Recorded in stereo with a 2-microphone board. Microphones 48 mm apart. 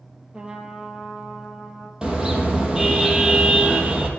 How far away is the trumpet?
About 2.5 m.